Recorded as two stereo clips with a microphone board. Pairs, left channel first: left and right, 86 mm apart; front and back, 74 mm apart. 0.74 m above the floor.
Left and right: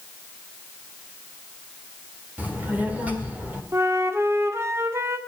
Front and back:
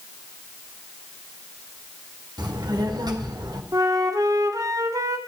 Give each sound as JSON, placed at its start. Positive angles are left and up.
{"t": 2.4, "sound": "a child speaking", "azimuth_deg": -160, "distance_m": 1.8}
{"t": 3.7, "sound": "a flute", "azimuth_deg": -145, "distance_m": 1.3}